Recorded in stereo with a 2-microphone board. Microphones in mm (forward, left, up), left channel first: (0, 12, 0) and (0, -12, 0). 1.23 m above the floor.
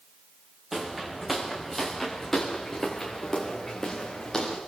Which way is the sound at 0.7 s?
10° right (ahead or behind).